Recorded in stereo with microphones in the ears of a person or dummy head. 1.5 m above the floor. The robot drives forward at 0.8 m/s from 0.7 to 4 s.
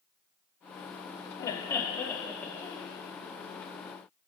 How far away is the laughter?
About 0.5 m.